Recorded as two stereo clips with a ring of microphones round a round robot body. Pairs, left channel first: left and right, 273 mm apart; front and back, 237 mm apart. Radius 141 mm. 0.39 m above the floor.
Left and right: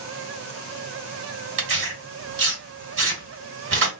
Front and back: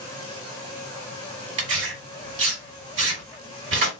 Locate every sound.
1.6 s tearing paper: 135° right, 2.5 m